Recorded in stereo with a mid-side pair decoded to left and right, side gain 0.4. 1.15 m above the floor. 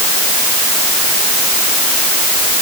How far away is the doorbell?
No doorbell in this recording.